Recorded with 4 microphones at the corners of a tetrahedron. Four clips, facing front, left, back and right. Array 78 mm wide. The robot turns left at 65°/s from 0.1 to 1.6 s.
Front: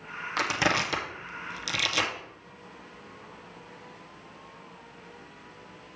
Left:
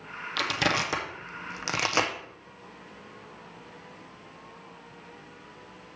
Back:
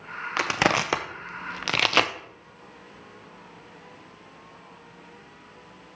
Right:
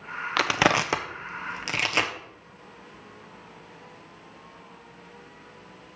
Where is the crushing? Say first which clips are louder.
Right 5 dB, back 3 dB; 110° right, 0.7 m; by 2.1 s 170° left, 0.7 m.